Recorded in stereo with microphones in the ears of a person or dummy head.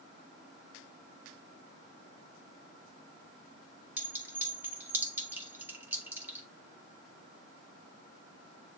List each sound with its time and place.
4.0 s a clink: 10° right (ahead or behind), 1.8 m